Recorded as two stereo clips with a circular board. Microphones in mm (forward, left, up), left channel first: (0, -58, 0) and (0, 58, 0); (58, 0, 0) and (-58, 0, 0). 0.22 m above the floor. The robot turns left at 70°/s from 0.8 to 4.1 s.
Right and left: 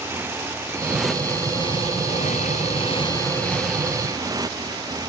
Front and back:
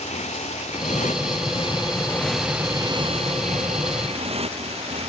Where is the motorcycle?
20° left; by 5.1 s 150° left.